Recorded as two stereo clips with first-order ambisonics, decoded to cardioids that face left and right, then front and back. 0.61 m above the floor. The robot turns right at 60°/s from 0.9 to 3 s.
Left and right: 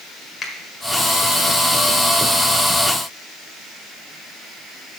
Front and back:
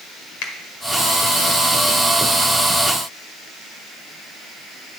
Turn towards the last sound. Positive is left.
turn(degrees=140)